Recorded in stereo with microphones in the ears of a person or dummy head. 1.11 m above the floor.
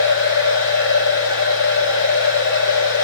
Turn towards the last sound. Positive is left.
turn(degrees=70)  # may be behind; listen again after turning